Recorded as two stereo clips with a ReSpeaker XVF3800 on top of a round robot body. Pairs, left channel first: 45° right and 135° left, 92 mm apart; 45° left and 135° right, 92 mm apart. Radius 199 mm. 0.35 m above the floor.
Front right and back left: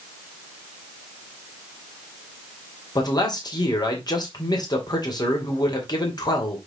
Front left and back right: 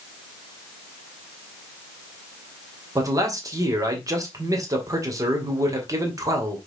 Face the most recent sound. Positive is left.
turn(degrees=-85)